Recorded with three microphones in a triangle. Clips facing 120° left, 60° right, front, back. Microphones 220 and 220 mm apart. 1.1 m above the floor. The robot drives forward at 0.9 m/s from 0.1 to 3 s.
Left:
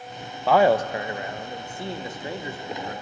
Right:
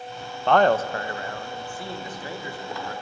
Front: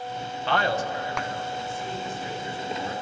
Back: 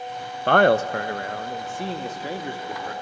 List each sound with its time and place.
0.5 s a man speaking: 155° right, 0.6 m; by 2.9 s 175° right, 2.5 m